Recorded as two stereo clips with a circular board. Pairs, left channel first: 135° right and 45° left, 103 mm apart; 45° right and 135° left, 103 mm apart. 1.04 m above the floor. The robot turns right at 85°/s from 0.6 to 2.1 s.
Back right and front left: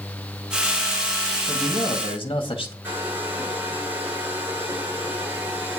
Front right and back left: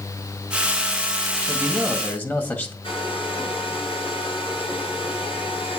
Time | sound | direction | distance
1.5 | a man speaking | 165° right | 1.9 m
2.8 | a hair dryer | 25° right | 8 m